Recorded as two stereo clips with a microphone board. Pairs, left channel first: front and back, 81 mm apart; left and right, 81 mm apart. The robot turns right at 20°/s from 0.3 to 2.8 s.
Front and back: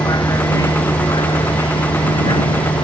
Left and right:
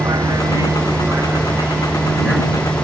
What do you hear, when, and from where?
0.0 s a vehicle: 45° right; by 2.8 s 5° left